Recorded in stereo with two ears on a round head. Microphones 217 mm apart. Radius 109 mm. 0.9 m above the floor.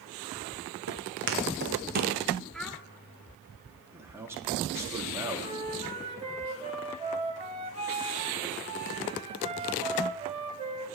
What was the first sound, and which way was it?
Footsteps, 60° right (ahead or behind).